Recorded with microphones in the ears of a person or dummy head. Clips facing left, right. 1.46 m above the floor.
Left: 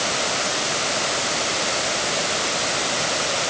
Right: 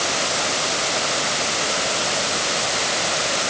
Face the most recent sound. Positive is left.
No sound to turn to.